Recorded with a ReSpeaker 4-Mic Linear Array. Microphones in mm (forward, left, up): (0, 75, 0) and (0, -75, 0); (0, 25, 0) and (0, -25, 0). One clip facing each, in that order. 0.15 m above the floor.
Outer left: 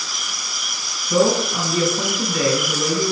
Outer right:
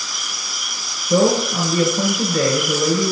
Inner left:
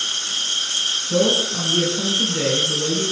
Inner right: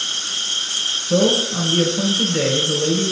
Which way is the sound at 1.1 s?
35° right (ahead or behind).